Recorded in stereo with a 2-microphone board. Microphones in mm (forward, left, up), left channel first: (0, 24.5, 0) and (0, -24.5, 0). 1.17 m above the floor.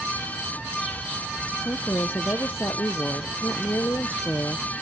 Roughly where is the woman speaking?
Left.